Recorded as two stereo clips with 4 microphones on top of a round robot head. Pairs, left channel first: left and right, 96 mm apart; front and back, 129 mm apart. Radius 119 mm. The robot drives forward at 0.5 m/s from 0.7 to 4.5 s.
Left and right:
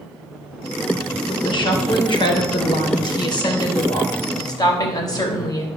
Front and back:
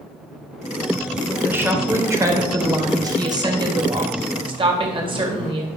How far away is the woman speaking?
About 2.5 m.